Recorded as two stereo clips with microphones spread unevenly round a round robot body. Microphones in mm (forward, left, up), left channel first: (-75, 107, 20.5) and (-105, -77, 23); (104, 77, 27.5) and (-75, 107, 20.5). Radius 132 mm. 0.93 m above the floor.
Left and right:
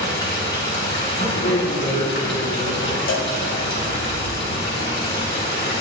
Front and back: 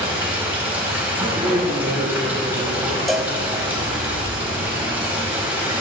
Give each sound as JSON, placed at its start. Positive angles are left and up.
{"t": 0.0, "sound": "running water", "azimuth_deg": 90, "distance_m": 4.5}
{"t": 1.4, "sound": "a man speaking", "azimuth_deg": 85, "distance_m": 2.5}
{"t": 3.1, "sound": "a cowbell", "azimuth_deg": 80, "distance_m": 1.5}